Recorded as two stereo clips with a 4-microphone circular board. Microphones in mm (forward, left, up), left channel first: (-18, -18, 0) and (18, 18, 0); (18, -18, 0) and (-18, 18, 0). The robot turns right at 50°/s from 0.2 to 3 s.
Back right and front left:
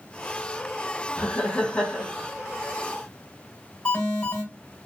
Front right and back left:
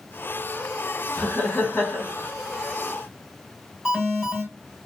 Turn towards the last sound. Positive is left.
turn(degrees=-165)